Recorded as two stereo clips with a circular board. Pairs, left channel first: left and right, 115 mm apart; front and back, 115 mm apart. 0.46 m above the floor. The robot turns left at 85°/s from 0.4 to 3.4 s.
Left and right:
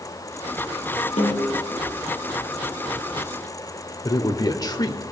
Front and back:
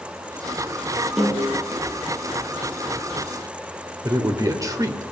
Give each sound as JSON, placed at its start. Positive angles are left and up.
{"t": 1.2, "sound": "a snare drum", "azimuth_deg": 100, "distance_m": 3.5}
{"t": 4.0, "sound": "a man speaking", "azimuth_deg": 130, "distance_m": 1.3}